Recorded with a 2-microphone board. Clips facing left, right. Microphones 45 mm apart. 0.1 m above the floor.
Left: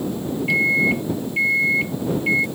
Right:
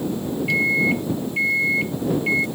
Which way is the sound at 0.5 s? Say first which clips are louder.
Left 2 dB; 10° left (ahead or behind).